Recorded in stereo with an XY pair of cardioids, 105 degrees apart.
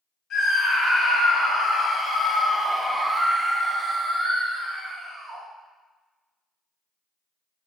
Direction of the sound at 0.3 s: 65° left.